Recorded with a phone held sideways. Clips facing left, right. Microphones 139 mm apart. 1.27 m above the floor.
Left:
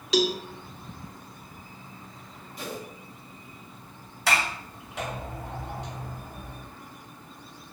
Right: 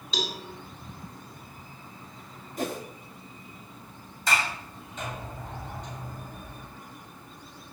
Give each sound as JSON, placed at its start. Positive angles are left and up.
{"t": 0.1, "sound": "a cowbell", "side_deg": 80, "distance_m": 2.5}
{"t": 2.6, "sound": "a whoosh", "side_deg": -45, "distance_m": 3.0}
{"t": 4.3, "sound": "a sliding door", "side_deg": 75, "distance_m": 7.0}